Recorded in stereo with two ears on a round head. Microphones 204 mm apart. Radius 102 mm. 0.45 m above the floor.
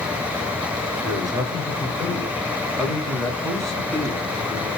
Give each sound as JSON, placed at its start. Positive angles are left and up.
{"t": 1.0, "sound": "a man speaking", "side_deg": -20, "distance_m": 1.7}